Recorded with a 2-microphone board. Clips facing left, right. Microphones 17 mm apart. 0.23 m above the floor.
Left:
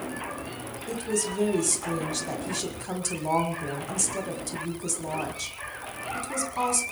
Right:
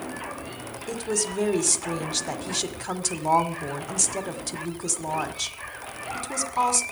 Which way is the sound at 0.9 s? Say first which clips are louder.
Right 1 dB; 25° right (ahead or behind).